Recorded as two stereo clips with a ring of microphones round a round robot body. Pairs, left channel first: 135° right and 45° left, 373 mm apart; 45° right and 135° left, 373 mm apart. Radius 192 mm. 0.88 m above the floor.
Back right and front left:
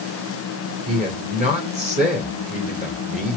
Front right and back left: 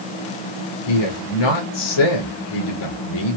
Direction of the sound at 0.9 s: 25° right.